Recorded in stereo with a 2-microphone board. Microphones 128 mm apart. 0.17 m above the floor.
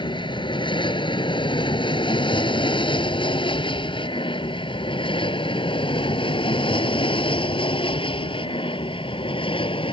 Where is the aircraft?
40° left (ahead or behind); by 9.9 s 45° left (ahead or behind).